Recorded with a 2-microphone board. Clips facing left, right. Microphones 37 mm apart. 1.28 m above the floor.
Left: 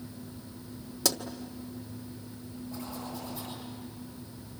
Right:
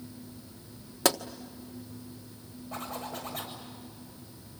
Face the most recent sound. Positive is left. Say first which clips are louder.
# right 3 dB
turn(degrees=-50)  # may be behind; listen again after turning